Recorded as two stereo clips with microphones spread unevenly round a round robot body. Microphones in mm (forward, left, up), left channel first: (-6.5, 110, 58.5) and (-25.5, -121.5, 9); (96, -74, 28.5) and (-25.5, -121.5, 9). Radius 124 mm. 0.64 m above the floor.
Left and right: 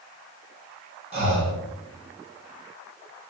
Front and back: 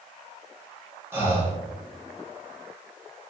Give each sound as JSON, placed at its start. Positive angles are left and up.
{"t": 1.1, "sound": "breathing", "azimuth_deg": -110, "distance_m": 1.0}